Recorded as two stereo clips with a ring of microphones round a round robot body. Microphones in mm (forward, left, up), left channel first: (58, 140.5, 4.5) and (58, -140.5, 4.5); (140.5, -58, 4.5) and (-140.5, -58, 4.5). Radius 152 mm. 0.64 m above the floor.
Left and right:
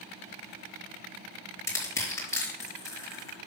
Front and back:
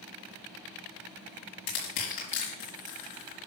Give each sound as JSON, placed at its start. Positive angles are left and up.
{"t": 1.7, "sound": "crushing", "azimuth_deg": 10, "distance_m": 4.0}